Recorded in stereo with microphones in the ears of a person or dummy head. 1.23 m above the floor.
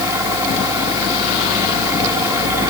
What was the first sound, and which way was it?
A fan, 20° right (ahead or behind).